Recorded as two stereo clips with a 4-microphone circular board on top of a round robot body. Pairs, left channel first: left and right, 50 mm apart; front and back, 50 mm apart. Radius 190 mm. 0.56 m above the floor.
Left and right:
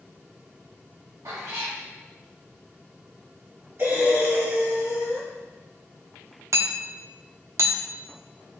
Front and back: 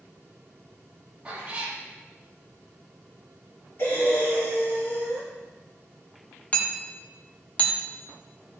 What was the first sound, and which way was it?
A cat meowing, 115° right.